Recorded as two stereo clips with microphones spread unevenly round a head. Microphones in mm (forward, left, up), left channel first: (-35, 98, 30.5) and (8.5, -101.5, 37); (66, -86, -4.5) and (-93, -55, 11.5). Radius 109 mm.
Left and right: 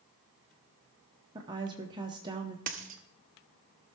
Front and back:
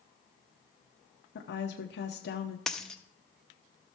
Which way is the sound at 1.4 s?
5° right.